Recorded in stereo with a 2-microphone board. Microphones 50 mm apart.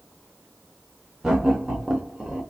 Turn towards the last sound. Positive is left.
turn(degrees=-10)  # may be behind; listen again after turning